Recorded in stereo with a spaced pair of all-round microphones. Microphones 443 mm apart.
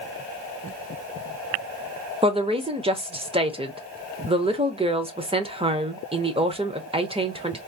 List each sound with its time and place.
2.2 s a woman speaking: 15° right (ahead or behind), 0.7 m